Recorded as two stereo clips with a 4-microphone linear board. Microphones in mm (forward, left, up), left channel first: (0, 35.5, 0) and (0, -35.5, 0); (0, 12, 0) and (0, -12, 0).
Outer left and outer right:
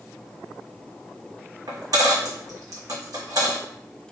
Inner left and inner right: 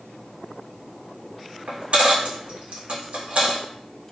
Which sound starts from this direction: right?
A dropped coin, at 1.7 s.